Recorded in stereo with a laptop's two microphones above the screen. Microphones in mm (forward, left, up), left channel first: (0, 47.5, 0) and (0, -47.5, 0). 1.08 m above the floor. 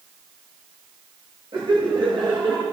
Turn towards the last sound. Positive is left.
turn(degrees=-55)  # may be behind; listen again after turning